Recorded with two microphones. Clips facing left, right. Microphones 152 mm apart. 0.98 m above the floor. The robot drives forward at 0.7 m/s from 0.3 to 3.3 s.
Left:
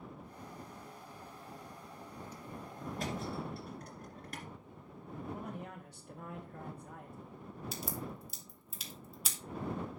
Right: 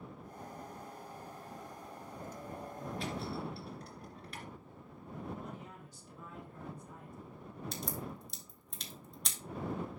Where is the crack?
5° left (ahead or behind), 1.3 m.